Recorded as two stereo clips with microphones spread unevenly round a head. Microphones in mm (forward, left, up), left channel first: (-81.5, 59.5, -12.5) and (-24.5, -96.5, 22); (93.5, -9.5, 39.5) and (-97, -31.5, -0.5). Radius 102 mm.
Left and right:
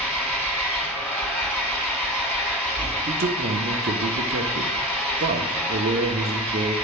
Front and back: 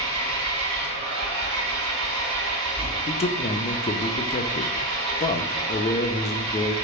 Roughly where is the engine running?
Behind.